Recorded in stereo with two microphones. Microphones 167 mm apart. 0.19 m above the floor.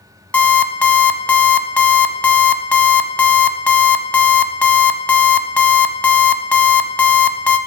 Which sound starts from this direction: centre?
An alarm clock, at 0.3 s.